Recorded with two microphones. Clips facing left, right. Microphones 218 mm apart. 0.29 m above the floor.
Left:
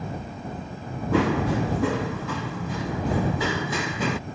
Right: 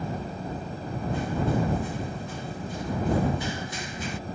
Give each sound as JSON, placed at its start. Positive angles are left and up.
{"t": 1.1, "sound": "running footsteps", "side_deg": 75}